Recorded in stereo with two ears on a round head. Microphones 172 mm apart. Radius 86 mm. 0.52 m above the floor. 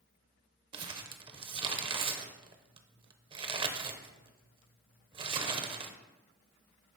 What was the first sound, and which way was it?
Crumpling, 25° right (ahead or behind).